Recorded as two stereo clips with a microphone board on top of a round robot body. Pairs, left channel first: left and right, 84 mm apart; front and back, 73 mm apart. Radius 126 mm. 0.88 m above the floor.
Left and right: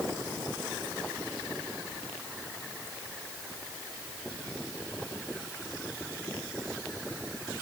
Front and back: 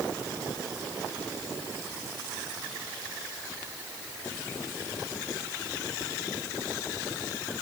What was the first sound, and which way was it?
Only background noise.